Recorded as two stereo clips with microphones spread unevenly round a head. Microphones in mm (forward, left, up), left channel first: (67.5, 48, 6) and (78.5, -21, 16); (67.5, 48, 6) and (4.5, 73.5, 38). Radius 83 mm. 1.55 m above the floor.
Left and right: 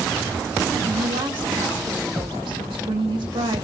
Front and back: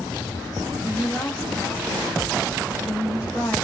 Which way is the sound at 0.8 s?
100° right.